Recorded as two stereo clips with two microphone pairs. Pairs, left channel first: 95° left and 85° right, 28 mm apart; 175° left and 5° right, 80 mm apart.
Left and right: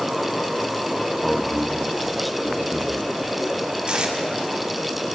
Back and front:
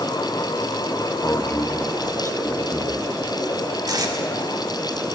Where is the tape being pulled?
30° right, 2 m.